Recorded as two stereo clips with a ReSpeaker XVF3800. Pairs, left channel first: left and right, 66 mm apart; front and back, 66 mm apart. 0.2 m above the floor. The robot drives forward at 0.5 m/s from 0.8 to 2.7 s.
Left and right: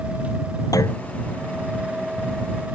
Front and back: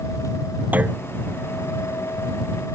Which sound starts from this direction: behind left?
A clunk, at 0.7 s.